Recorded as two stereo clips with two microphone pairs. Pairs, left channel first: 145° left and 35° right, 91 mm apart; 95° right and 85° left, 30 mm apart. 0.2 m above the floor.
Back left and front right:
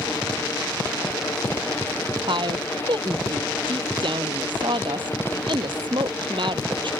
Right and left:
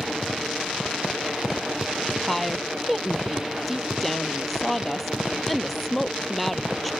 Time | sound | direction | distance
2.3 | a woman speaking | 10° right | ?